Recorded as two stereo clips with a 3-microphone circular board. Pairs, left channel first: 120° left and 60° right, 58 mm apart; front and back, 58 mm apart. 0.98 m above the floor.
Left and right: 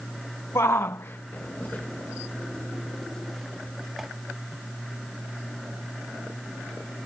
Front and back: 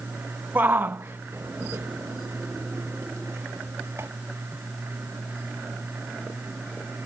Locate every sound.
0.6 s a shout: 130° left; by 4.1 s 145° right